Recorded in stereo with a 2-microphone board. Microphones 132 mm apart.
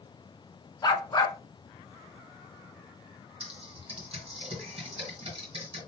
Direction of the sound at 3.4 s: 45° right (ahead or behind).